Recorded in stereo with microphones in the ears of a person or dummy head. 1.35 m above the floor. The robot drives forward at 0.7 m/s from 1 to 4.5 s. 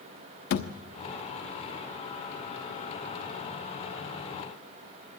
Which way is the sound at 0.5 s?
50° left (ahead or behind).